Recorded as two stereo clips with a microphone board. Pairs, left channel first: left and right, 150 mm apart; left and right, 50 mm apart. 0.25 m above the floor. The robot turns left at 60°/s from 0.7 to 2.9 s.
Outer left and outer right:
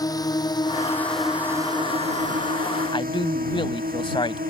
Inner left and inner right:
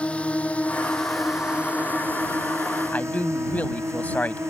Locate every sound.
0.0 s a drone: 25° left (ahead or behind); by 4.5 s 85° right
2.9 s a man speaking: 35° left (ahead or behind)